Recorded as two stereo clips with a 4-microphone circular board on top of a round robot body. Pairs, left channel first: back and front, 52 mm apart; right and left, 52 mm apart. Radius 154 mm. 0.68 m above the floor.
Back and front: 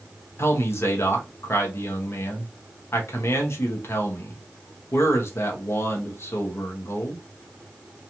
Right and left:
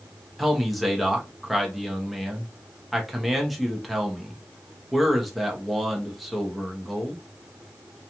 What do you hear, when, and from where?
0.4 s a man speaking: straight behind, 0.9 m